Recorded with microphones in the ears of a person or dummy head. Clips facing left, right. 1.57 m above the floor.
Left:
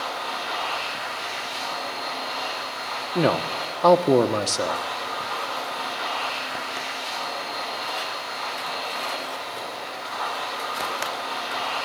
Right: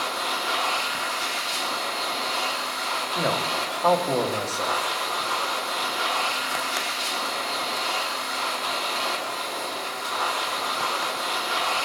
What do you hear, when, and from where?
0.0 s a machine running: 65° right (ahead or behind), 4.5 m
3.1 s a man speaking: 55° left (ahead or behind), 1.0 m